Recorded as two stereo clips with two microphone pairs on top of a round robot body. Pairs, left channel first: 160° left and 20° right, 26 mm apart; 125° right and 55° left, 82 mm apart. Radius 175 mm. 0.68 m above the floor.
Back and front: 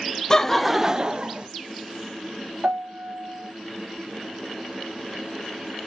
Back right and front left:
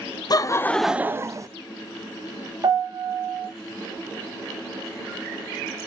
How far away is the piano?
About 0.8 m.